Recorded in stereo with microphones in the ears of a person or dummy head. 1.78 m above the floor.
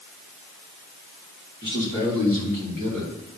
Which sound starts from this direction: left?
A man speaking, at 1.6 s.